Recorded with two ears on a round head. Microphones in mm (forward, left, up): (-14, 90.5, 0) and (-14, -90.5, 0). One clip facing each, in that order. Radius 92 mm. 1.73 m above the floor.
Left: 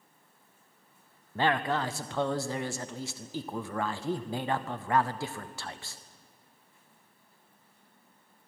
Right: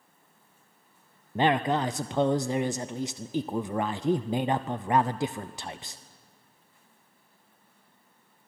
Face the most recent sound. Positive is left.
turn(degrees=-15)  # may be behind; listen again after turning